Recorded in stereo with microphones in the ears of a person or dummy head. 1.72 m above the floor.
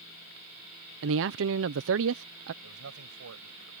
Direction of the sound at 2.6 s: 80° right.